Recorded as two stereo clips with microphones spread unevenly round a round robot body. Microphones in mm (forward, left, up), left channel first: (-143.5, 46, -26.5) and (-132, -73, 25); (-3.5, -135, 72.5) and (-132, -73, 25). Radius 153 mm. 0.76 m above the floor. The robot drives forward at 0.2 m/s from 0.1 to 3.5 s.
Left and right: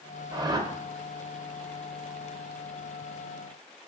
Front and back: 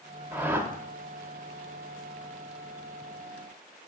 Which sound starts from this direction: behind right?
A whoosh, at 0.3 s.